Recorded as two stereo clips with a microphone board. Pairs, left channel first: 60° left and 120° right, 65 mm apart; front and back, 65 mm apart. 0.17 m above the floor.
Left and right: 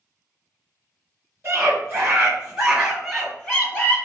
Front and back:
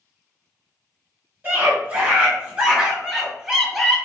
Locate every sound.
1.4 s a scream: 150° right, 1.6 m; by 4.0 s 95° left, 1.4 m